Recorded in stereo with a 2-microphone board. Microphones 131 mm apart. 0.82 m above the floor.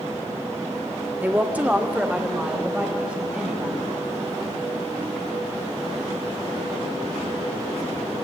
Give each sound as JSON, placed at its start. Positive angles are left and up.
{"t": 1.2, "sound": "a woman speaking", "side_deg": -15, "distance_m": 1.4}